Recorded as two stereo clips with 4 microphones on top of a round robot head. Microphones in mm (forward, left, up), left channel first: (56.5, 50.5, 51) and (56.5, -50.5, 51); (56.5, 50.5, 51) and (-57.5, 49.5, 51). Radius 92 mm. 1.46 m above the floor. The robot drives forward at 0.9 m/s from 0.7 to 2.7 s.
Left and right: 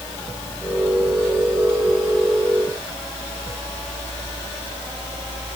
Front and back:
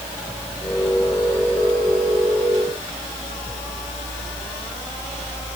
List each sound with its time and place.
Only background noise.